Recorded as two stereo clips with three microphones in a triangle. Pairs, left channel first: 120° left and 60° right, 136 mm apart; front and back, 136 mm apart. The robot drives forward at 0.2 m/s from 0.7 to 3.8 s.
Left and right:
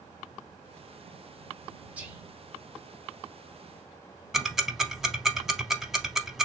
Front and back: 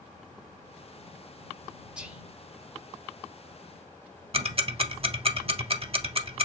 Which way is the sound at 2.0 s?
115° right.